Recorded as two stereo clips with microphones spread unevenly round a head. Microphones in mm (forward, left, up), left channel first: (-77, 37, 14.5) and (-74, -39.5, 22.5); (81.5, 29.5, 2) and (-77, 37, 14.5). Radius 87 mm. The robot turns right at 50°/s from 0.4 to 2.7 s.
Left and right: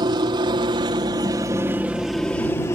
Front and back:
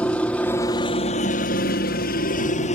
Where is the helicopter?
85° right; by 2.8 s 30° left.